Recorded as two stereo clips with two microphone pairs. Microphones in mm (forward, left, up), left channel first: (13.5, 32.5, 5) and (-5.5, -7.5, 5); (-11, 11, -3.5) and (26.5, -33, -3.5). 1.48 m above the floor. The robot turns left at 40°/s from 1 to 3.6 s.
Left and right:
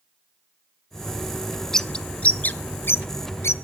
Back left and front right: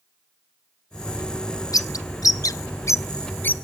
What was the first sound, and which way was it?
A bird, 145° left.